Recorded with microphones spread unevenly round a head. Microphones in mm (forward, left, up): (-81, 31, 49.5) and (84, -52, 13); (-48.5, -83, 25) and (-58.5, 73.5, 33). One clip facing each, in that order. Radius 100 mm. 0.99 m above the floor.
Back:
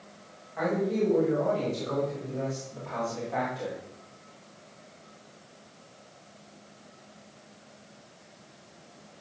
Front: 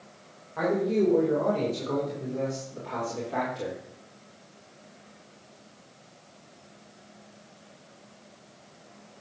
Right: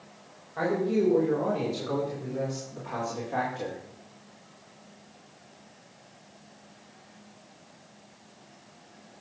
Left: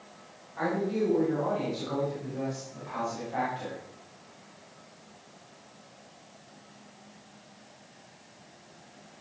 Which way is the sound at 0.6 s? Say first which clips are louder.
Front 3 dB, right 3 dB; 60° right.